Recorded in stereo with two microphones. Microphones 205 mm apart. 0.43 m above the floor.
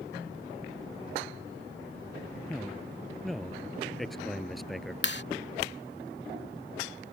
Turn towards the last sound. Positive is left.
turn(degrees=55)  # may be behind; listen again after turning